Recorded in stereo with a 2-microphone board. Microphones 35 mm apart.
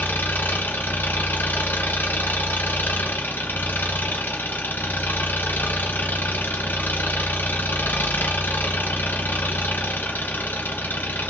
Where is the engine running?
80° left, 1.9 m.